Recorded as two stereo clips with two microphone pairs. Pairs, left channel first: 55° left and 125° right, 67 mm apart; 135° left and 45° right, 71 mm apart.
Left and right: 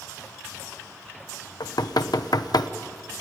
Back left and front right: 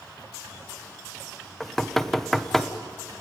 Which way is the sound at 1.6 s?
55° left.